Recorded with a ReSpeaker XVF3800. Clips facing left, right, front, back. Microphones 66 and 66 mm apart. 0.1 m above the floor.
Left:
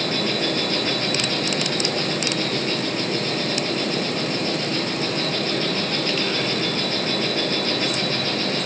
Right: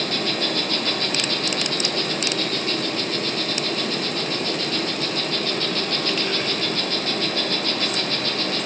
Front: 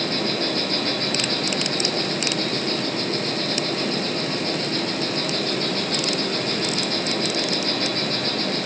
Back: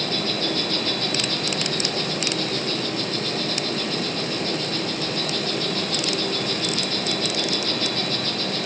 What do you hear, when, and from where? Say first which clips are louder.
0.0 s an insect: left 2 dB, front 2 dB; 20° left, 2 m